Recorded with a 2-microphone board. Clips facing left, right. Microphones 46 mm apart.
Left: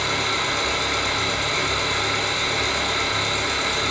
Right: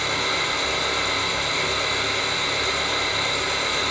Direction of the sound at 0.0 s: 70° left (ahead or behind).